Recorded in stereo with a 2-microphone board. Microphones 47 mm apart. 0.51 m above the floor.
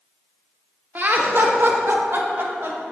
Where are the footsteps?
I don't hear footsteps.